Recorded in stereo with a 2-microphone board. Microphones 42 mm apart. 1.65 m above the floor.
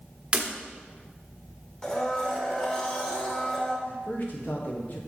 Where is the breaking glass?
25° right (ahead or behind), 1.2 m.